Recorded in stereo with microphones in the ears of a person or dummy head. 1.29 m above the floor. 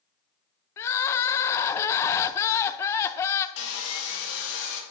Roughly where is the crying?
Centre.